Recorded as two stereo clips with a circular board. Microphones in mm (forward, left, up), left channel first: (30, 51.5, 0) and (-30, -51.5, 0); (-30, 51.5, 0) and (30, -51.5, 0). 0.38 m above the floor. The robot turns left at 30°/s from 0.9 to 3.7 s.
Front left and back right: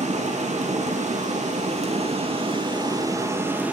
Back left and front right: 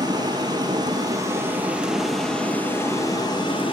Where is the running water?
115° right, 5.5 m; by 3.7 s 160° left, 5.5 m.